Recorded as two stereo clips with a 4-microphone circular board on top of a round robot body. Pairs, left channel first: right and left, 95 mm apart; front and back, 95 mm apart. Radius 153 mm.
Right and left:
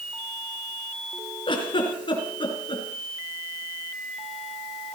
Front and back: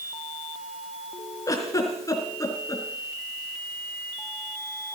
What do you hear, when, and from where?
1.5 s a giggle: 55° right, 3.5 m